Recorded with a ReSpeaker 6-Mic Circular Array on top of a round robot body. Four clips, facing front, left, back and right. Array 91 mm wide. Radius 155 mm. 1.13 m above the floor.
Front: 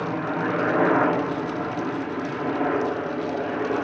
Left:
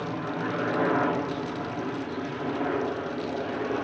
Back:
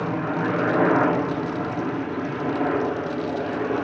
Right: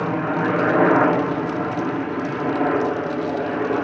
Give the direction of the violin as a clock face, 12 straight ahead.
I don't hear a violin.